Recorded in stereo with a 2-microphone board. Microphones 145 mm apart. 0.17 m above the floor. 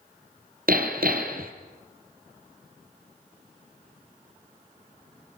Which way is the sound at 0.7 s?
75° right (ahead or behind).